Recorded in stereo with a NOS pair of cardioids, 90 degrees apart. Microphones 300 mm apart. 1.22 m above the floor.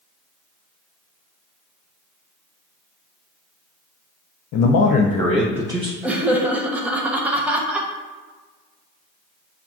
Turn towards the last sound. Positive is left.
turn(degrees=-5)